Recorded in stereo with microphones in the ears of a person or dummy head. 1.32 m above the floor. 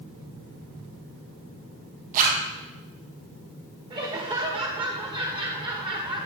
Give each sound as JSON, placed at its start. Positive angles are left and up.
{"t": 2.1, "sound": "a zipper", "side_deg": -45, "distance_m": 1.3}
{"t": 3.9, "sound": "laughter", "side_deg": -25, "distance_m": 1.3}